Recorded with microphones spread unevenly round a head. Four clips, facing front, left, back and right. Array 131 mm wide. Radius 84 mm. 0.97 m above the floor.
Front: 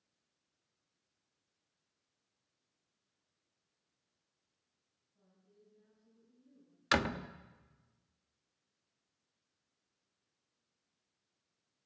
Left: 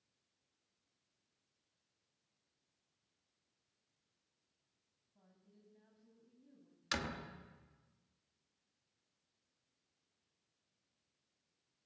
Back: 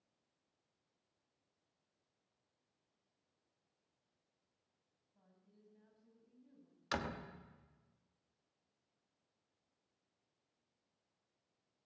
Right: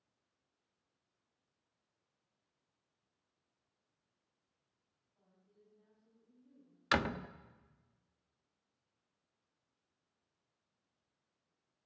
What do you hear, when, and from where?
5.2 s a woman speaking: 120° left, 8.5 m
6.9 s a door slam: 20° right, 1.2 m